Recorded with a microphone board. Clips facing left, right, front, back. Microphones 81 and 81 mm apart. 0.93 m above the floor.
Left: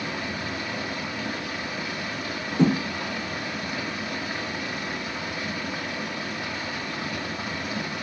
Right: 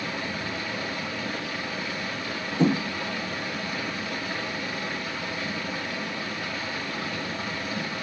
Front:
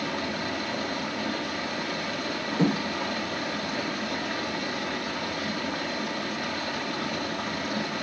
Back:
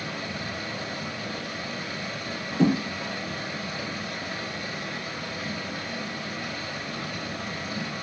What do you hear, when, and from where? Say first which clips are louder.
0.0 s running water: left 1 dB, front 4 dB; 20° left, 1.8 m
2.6 s a thud: left 1 dB, back 3 dB; 55° left, 5.5 m